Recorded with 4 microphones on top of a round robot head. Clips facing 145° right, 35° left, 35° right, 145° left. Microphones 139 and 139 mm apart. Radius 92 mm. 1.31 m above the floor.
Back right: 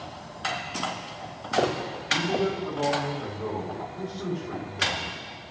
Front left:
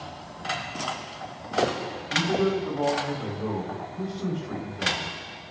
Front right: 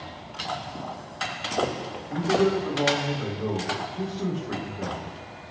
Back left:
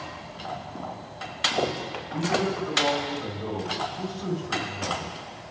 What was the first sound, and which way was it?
A man speaking, 55° right.